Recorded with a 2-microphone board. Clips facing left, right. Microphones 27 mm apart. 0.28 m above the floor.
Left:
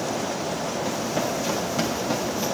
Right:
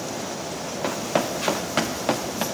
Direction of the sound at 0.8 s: 75° right (ahead or behind).